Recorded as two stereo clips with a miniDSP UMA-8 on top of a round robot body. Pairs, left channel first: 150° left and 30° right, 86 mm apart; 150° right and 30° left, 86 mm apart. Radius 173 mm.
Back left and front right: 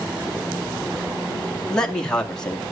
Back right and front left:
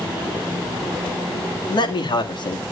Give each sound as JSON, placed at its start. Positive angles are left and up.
{"t": 1.7, "sound": "a man speaking", "azimuth_deg": -130, "distance_m": 2.0}